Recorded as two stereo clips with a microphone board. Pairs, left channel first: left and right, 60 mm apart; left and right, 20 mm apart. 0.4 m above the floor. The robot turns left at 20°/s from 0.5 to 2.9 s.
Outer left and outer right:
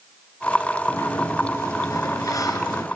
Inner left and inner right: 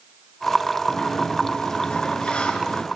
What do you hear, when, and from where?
0.9 s a sliding door: 130° left, 3 m; by 2.9 s 90° left, 3 m